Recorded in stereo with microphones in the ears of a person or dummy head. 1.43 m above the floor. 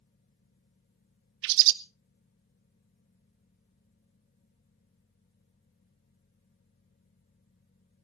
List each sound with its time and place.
1.4 s a bird: 65° right (ahead or behind), 0.6 m